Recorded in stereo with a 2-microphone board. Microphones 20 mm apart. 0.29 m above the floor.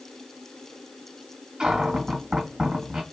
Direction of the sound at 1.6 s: 45° right (ahead or behind).